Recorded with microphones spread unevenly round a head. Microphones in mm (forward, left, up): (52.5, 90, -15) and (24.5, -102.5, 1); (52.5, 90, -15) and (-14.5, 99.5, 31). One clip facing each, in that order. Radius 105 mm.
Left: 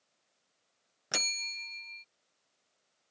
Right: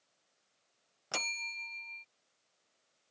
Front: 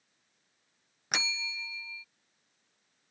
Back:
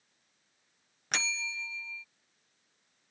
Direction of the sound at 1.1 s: 145° left.